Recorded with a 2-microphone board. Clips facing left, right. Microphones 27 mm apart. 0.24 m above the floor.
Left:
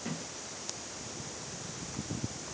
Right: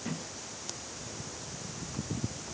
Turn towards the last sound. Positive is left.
No sound to turn to.